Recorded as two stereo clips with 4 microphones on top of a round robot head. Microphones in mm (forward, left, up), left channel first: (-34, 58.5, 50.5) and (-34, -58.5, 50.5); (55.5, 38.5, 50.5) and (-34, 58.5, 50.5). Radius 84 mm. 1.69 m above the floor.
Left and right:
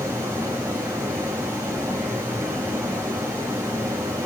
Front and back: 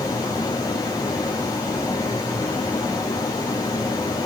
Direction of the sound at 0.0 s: 30° right.